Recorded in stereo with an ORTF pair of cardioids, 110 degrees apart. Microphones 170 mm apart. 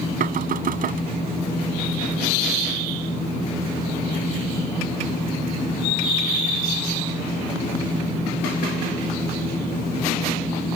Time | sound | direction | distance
0.2 | knocking | 55° right | ?